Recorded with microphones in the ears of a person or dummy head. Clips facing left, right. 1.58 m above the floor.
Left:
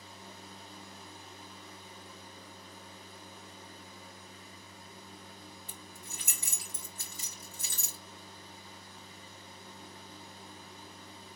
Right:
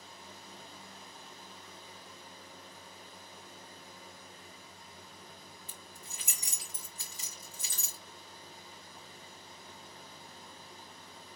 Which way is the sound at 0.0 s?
65° left (ahead or behind).